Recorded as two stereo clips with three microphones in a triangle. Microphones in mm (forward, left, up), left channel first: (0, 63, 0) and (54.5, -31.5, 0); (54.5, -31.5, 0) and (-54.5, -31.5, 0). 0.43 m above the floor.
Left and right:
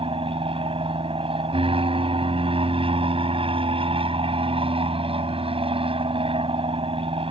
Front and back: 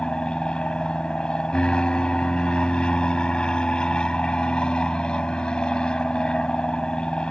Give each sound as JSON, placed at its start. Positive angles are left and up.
{"t": 0.0, "sound": "an aircraft", "azimuth_deg": -80}